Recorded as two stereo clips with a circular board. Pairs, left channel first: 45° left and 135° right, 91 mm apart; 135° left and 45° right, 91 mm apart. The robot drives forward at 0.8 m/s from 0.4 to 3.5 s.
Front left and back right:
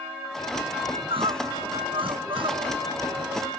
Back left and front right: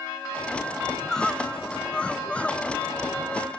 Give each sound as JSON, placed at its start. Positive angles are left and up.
{"t": 0.9, "sound": "crying", "azimuth_deg": -140}